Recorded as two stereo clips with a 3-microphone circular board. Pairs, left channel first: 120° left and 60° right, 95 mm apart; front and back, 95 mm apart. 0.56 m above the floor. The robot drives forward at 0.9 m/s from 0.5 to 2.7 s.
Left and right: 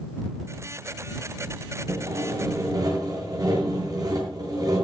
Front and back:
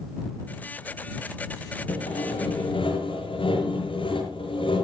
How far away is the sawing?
About 8.5 m.